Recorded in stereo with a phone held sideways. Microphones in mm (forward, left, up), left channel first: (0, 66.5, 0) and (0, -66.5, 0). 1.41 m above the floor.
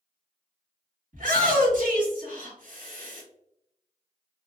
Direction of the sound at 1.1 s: 85° right.